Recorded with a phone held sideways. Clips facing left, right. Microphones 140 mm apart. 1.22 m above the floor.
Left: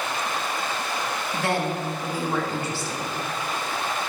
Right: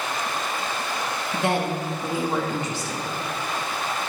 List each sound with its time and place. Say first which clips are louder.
1.3 s a woman speaking: right 2 dB; 20° right (ahead or behind), 2.0 m